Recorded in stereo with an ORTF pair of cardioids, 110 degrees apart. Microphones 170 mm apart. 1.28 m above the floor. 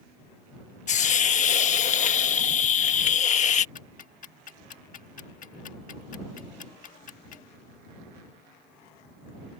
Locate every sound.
0.9 s a hiss: 45° left
3.8 s ticking: 50° left